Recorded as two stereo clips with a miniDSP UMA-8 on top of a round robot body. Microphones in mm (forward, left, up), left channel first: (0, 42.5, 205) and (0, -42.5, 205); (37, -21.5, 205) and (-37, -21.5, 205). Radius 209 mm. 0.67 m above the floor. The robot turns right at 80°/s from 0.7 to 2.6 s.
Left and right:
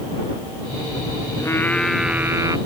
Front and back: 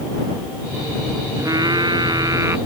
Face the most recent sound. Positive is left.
turn(degrees=-125)